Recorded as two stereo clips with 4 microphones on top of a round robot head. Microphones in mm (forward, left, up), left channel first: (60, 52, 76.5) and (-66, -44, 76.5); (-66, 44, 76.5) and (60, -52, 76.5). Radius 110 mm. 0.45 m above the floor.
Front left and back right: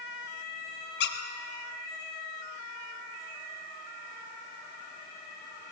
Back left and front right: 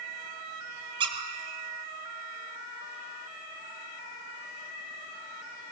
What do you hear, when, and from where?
1.0 s a squeak: 25° left, 1.4 m